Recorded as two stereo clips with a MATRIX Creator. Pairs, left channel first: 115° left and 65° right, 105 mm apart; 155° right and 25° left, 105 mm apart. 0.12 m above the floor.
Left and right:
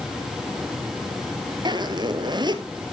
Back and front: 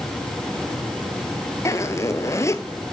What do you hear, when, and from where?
1.6 s a zipper: 100° right, 1.4 m